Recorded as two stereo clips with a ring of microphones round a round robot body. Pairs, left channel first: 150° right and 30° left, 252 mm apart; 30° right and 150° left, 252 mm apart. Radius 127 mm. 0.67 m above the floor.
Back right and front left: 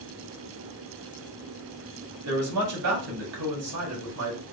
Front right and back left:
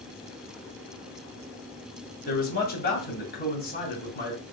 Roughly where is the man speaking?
Ahead.